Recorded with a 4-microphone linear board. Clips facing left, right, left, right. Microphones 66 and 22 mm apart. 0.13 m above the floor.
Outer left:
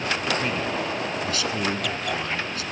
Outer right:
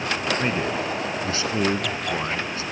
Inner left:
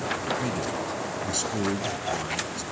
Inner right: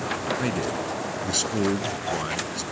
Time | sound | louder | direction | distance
0.4 | a man speaking | outer right 2 dB, inner right 2 dB | 30° right (ahead or behind) | 1.2 m